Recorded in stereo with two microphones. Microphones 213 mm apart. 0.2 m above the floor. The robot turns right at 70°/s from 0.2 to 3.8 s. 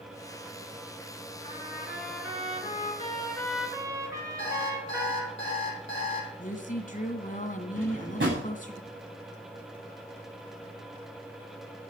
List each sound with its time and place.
1.4 s a trumpet: 30° left, 3.5 m; by 5.4 s 165° right, 3.5 m
4.4 s an alarm clock: 60° left (ahead or behind), 4 m
6.4 s a woman speaking: 40° left (ahead or behind), 1.9 m
7.8 s a drawer: 60° right (ahead or behind), 8.5 m